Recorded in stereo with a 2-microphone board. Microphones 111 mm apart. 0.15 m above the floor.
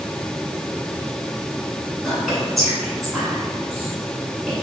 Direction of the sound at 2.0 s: Centre (ahead or behind).